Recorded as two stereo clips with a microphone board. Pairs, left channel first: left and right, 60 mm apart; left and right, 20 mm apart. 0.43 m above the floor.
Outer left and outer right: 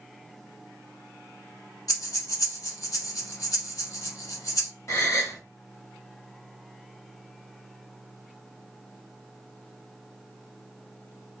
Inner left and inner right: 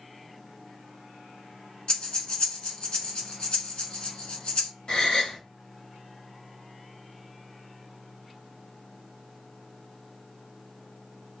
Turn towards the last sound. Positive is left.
turn(degrees=60)  # may be behind; listen again after turning